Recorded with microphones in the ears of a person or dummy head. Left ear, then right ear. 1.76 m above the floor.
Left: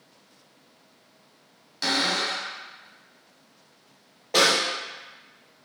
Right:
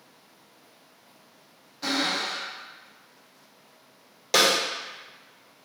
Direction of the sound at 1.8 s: 70° left (ahead or behind).